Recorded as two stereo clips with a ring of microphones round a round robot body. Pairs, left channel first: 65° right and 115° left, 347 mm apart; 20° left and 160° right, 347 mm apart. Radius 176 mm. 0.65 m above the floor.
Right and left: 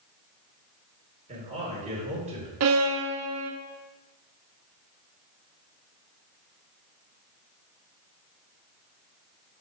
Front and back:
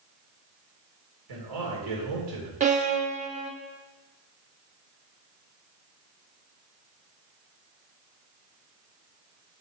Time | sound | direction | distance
1.3 | a man speaking | 175° right | 2.5 m
2.6 | a violin | 140° left | 1.0 m